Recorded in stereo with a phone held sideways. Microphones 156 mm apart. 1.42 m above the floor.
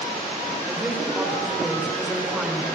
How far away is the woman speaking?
About 4.5 m.